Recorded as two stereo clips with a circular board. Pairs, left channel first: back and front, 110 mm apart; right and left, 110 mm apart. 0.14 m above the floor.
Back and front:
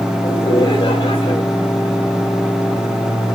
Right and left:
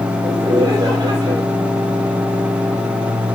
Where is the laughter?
140° left, 4.5 m.